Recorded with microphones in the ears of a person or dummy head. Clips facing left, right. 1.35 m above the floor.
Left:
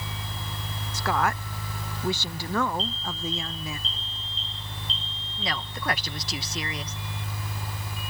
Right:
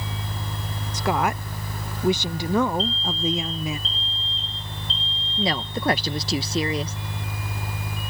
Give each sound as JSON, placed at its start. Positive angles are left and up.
{"t": 0.9, "sound": "a woman speaking", "side_deg": -20}
{"t": 2.8, "sound": "an alarm", "side_deg": 60}
{"t": 5.4, "sound": "a woman speaking", "side_deg": -30}